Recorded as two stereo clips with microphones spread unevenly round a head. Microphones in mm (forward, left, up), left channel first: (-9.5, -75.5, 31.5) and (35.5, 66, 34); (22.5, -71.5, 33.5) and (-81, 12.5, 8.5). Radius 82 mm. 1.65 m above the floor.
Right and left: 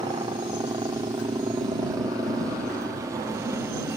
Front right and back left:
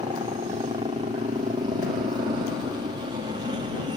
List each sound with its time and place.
0.0 s a helicopter: 120° left; by 4.0 s 135° left